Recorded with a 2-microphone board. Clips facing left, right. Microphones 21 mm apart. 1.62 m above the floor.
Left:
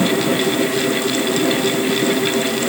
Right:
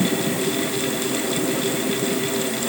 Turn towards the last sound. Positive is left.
No sound to turn to.